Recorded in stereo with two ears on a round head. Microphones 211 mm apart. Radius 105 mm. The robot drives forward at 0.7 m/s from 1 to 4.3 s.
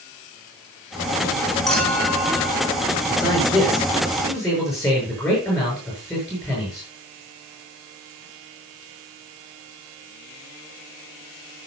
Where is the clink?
Centre (ahead or behind), 5.5 m.